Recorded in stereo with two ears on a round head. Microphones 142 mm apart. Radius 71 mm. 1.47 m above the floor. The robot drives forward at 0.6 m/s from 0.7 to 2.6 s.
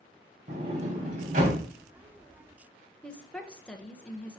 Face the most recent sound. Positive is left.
turn(degrees=5)  # may be behind; listen again after turning